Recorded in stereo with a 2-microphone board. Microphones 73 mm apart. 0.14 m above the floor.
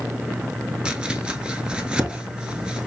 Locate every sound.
0.8 s chopping: 15° right (ahead or behind), 0.8 m